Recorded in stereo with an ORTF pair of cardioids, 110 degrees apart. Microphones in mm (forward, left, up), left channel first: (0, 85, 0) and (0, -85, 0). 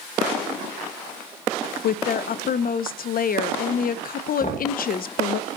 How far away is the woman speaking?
About 0.6 m.